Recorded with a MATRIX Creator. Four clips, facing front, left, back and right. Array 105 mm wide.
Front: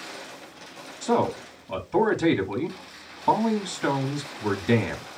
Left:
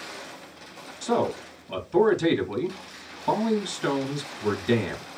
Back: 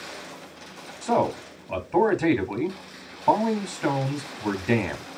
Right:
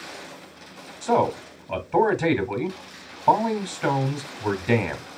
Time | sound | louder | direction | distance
1.0 | a man speaking | right 4 dB, even | 120° right | 1.5 m